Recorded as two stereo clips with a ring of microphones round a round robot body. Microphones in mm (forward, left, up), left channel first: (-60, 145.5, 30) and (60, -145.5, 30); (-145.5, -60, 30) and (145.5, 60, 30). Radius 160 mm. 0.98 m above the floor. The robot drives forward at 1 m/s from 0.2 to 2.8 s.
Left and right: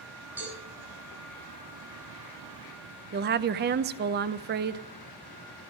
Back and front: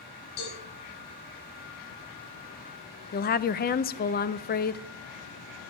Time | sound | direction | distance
0.4 | a cowbell | 155° right | 6 m
3.1 | a woman speaking | 110° right | 0.6 m